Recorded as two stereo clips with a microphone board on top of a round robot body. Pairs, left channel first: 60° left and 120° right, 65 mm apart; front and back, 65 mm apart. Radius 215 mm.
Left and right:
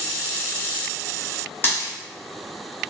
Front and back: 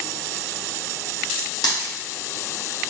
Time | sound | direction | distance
1.6 | a dropped coin | 5° left | 0.9 m